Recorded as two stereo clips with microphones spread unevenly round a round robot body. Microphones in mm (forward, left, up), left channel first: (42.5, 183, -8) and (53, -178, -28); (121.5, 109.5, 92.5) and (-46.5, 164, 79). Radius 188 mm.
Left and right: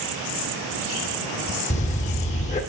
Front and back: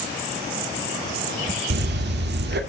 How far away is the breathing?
About 1.8 m.